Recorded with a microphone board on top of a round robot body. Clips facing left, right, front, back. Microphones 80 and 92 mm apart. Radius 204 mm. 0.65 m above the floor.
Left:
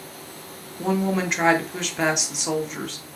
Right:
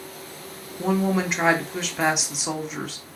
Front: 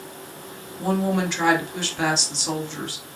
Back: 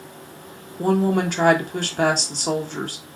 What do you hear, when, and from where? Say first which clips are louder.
0.8 s a woman speaking: even, back 3 dB; 175° right, 1.2 m